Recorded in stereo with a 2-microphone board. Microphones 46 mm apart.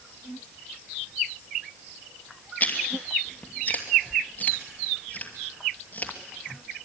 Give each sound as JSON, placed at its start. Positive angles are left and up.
{"t": 2.6, "sound": "chewing", "side_deg": 35, "distance_m": 2.5}